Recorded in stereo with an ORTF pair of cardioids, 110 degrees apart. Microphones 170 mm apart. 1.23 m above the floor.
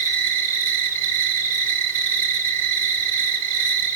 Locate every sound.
0.0 s an insect: 55° right, 6.5 m